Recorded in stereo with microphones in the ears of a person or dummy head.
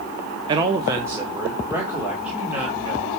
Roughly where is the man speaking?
Right.